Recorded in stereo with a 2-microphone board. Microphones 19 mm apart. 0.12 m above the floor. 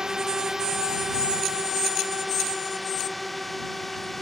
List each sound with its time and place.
0.0 s a drone: 30° right (ahead or behind); by 4.2 s 10° left (ahead or behind)